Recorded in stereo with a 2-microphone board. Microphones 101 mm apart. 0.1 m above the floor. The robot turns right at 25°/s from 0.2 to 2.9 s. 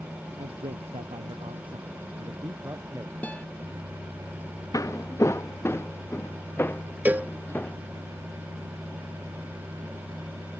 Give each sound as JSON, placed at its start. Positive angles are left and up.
{"t": 0.4, "sound": "a man speaking", "azimuth_deg": -90}
{"t": 3.2, "sound": "a guitar", "side_deg": 15}
{"t": 4.7, "sound": "footsteps", "side_deg": 35}
{"t": 7.0, "sound": "a cowbell", "side_deg": -20}